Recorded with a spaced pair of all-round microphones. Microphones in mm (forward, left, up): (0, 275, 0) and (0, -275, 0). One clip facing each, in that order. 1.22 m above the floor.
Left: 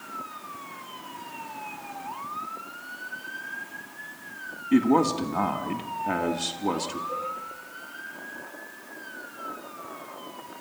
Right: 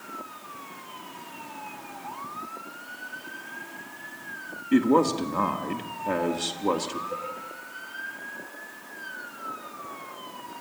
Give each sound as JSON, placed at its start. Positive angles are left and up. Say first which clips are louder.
{"t": 4.7, "sound": "a man speaking", "louder": "even", "side_deg": 5, "distance_m": 1.7}
{"t": 7.1, "sound": "a cowbell", "louder": "even", "side_deg": 70, "distance_m": 6.0}